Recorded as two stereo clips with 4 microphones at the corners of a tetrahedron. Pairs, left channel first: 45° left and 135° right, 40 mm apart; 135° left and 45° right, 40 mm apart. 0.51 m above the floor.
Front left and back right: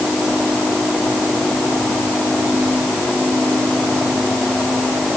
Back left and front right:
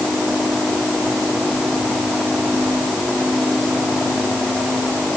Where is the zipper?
No zipper in this recording.